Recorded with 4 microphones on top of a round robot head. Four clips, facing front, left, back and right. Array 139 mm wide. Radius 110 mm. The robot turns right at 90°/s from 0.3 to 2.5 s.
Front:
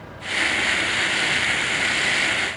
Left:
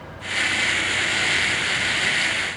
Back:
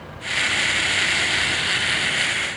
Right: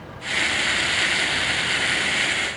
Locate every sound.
Only background noise.